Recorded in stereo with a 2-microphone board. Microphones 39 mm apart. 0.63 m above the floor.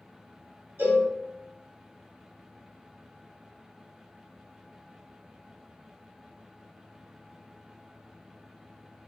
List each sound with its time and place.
0.8 s a cowbell: 65° right (ahead or behind), 0.8 m